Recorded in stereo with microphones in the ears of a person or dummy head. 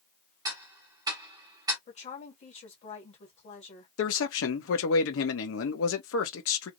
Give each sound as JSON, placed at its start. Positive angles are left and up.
{"t": 0.5, "sound": "ticking", "side_deg": -20, "distance_m": 1.2}
{"t": 1.9, "sound": "a woman speaking", "side_deg": 35, "distance_m": 1.9}
{"t": 4.0, "sound": "a man speaking", "side_deg": 70, "distance_m": 1.2}